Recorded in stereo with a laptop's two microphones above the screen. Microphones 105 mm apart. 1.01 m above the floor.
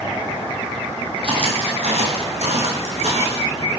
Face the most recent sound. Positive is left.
turn(degrees=-70)  # may be behind; listen again after turning